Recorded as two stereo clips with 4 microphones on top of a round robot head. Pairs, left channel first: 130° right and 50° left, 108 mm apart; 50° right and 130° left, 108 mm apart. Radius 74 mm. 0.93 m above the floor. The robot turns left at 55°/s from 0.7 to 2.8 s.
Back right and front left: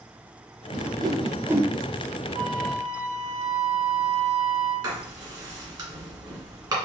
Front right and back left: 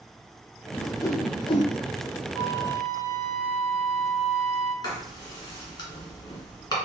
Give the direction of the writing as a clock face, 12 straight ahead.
12 o'clock.